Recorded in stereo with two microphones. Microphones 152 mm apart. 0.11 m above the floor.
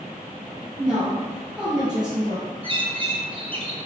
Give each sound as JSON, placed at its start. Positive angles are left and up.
{"t": 0.8, "sound": "a woman speaking", "side_deg": -30, "distance_m": 1.9}
{"t": 2.6, "sound": "a bird", "side_deg": -35, "distance_m": 0.9}